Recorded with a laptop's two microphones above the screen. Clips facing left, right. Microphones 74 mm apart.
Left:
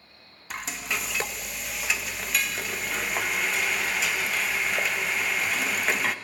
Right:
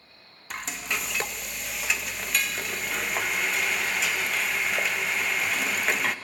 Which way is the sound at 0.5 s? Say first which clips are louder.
Even; 5° left (ahead or behind).